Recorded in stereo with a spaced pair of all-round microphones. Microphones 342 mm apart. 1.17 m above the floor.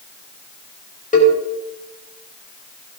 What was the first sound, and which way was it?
A cowbell, 20° left (ahead or behind).